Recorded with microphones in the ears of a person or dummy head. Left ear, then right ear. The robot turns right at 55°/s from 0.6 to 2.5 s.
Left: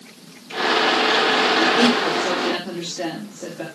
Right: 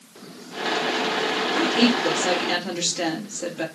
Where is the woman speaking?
155° right, 4 m; by 3.6 s 100° right, 4 m.